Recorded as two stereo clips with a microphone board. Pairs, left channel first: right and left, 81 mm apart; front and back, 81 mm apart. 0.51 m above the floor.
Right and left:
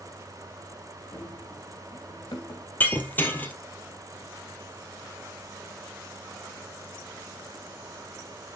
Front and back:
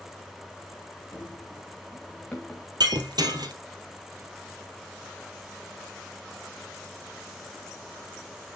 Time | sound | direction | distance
1.1 | running footsteps | 60° right | 2.5 m
2.8 | breaking glass | 155° right | 2 m